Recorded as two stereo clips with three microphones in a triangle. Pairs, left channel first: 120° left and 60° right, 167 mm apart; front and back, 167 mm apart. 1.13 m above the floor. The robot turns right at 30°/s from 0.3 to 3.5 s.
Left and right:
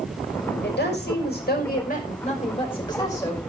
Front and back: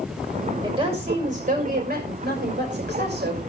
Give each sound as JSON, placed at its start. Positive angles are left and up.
{"t": 0.6, "sound": "a woman speaking", "azimuth_deg": 115, "distance_m": 5.5}